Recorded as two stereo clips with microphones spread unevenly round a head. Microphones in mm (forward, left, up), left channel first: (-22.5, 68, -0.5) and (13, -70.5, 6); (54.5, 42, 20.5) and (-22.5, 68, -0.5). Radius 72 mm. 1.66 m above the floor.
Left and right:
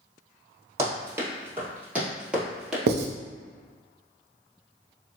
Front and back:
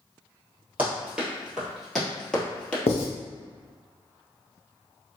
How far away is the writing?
About 0.5 m.